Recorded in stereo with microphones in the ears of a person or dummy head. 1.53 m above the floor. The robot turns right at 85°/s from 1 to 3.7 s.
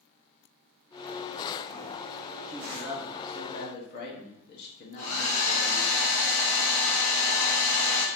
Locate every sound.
2.5 s a man speaking: 45° right, 1.2 m; by 6.0 s 60° left, 1.2 m
5.0 s a hair dryer: 85° left, 1.5 m